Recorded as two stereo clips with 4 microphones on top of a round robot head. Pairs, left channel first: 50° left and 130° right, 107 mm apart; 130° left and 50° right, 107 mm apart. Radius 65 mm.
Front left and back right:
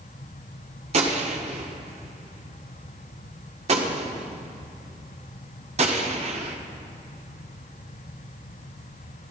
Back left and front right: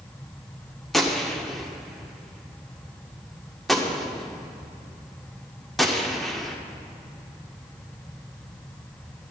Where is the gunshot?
140° right, 1.4 m.